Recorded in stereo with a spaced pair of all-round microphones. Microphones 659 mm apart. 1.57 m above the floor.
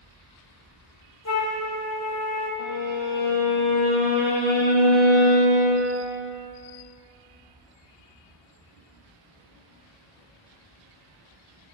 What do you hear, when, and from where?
1.2 s a flute: 25° left (ahead or behind), 0.9 m
2.6 s a violin: 45° left (ahead or behind), 1.2 m